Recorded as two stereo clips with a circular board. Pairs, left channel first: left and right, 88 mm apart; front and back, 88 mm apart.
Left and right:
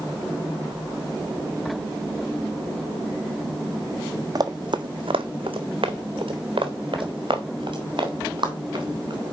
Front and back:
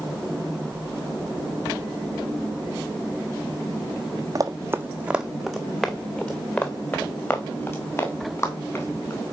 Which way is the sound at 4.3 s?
135° right.